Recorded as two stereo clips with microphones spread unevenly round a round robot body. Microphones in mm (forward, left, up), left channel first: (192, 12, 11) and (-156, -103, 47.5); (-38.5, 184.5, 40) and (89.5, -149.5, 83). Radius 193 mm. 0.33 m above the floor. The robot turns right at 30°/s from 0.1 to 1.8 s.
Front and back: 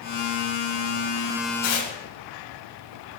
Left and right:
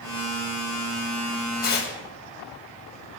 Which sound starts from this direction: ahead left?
Tearing paper, at 1.6 s.